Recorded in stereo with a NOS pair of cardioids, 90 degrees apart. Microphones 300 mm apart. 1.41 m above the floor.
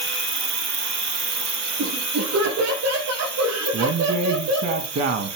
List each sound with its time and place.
0.0 s an insect: 35° right, 1.2 m
1.8 s laughter: 60° right, 7 m
3.7 s a man speaking: 55° right, 2 m